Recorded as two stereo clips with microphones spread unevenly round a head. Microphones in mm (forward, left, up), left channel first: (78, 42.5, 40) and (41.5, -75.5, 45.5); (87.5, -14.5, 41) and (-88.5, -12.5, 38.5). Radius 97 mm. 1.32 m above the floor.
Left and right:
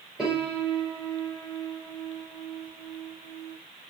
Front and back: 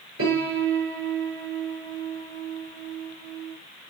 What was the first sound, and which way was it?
A piano, 170° left.